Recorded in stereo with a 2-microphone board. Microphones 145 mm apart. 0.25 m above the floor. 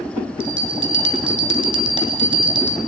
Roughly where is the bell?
Right.